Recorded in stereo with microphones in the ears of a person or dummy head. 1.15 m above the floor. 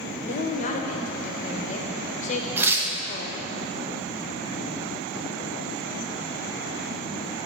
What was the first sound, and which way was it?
A woman speaking, 35° left (ahead or behind).